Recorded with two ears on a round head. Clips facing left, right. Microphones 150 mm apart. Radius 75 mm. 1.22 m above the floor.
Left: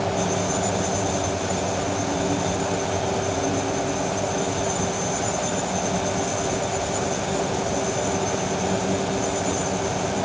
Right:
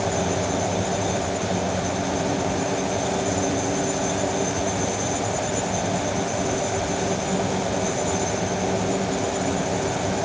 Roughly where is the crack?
No crack in this recording.